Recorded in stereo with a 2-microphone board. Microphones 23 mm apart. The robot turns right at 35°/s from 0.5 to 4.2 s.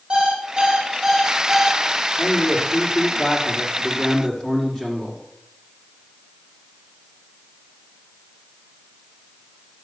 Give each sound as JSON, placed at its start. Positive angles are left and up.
{"t": 0.1, "sound": "an alarm clock", "azimuth_deg": -40, "distance_m": 4.5}
{"t": 2.2, "sound": "a man speaking", "azimuth_deg": 90, "distance_m": 6.5}